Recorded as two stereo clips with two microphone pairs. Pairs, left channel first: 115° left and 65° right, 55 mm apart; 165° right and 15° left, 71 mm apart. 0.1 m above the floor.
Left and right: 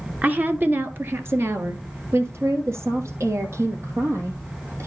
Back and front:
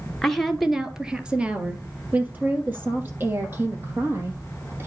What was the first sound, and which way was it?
A woman speaking, 85° right.